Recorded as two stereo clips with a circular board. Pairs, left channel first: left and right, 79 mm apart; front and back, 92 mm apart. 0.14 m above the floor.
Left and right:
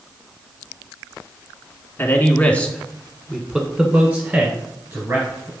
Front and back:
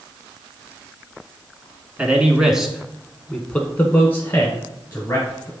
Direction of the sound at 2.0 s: 120° left.